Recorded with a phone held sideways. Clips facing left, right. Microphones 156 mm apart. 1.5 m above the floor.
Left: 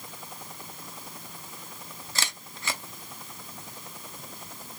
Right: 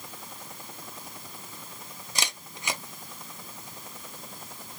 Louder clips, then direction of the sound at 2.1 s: Right 2 dB; 15° right (ahead or behind).